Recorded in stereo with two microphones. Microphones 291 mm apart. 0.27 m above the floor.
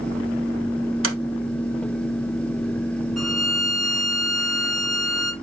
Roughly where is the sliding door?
Right.